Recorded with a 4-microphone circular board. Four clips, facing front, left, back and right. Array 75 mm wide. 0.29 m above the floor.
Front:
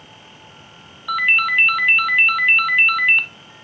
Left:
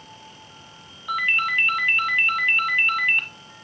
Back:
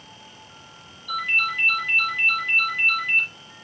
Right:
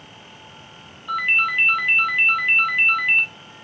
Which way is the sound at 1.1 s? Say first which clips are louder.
Right 1 dB, front 7 dB; 5° left.